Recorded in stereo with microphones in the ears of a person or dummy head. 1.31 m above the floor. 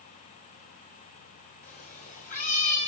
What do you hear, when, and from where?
1.6 s a cat meowing: 45° left (ahead or behind), 2.5 m; by 2.9 s 40° left (ahead or behind), 3 m